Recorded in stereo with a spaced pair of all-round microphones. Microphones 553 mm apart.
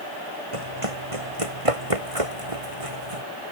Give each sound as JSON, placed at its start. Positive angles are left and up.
{"t": 0.5, "sound": "running footsteps", "side_deg": -70}